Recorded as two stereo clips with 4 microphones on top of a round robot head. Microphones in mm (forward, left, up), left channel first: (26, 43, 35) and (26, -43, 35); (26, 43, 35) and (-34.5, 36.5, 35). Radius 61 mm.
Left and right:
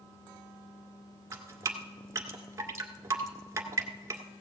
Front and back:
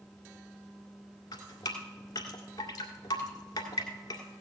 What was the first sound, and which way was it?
Dripping, 35° right.